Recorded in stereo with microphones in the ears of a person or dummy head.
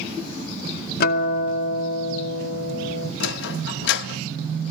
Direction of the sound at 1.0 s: 60° left (ahead or behind).